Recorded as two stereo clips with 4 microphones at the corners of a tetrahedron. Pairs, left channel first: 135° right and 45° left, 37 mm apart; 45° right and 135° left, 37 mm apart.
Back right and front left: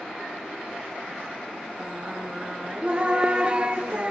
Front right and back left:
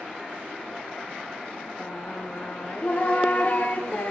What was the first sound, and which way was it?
Singing, 15° right.